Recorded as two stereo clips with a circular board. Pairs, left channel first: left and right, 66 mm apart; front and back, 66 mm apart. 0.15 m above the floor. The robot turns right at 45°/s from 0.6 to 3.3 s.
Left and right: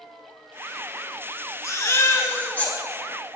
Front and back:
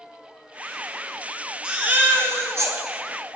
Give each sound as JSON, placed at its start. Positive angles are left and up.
{"t": 1.6, "sound": "a baby crying", "azimuth_deg": 105, "distance_m": 0.8}